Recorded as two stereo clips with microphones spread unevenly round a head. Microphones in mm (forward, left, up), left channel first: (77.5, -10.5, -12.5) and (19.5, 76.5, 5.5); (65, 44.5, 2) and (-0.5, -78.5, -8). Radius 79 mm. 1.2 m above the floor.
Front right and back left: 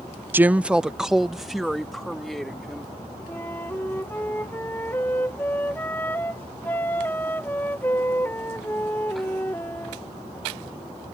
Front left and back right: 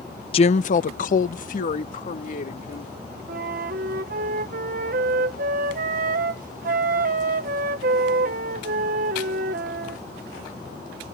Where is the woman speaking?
50° left; by 2.9 s 35° left.